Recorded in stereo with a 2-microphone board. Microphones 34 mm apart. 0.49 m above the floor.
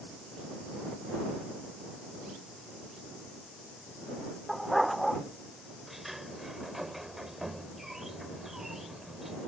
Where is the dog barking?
Centre (ahead or behind).